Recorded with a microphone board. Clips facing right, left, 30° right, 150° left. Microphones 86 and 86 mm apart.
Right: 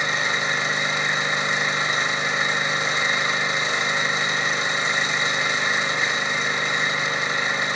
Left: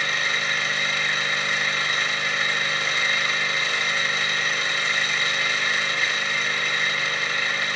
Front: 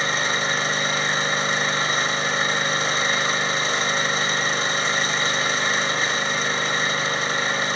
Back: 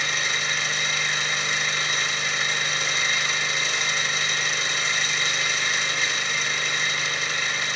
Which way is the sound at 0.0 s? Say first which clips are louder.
Right 2 dB, front 5 dB; 35° right.